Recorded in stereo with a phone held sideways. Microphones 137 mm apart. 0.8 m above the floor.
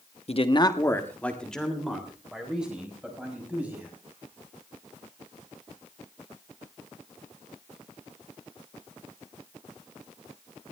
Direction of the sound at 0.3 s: 50° left (ahead or behind).